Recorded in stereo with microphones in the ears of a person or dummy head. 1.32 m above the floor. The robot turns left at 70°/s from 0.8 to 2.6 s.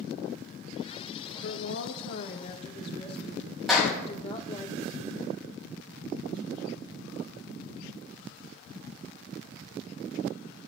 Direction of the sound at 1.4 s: 110° left.